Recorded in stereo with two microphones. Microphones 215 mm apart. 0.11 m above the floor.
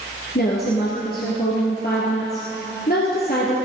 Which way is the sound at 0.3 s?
45° left (ahead or behind).